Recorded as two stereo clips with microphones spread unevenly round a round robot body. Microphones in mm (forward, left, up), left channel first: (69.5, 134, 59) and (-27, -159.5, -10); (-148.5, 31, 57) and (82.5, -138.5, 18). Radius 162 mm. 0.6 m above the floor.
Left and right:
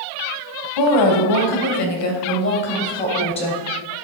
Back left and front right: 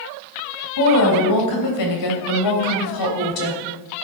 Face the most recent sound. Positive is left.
turn(degrees=150)